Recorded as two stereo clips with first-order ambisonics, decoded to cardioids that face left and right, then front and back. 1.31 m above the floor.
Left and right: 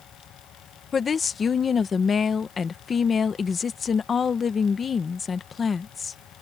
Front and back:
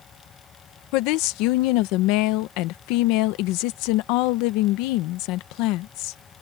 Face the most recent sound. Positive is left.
turn(degrees=20)